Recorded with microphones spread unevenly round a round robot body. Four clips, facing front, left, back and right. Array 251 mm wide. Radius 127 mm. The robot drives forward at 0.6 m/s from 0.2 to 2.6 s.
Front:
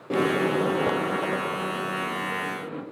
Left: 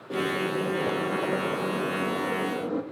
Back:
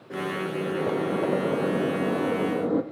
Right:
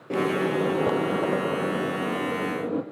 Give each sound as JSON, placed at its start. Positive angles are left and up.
{"t": 0.1, "sound": "a microwave", "azimuth_deg": -15, "distance_m": 0.7}